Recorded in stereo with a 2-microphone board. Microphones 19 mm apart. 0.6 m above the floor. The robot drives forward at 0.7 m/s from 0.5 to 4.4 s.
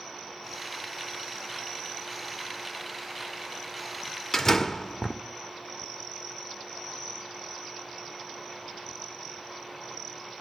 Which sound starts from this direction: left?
A door slam, at 4.3 s.